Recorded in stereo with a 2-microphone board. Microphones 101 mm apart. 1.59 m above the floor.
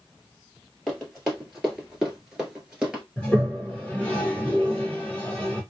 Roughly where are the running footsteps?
Centre.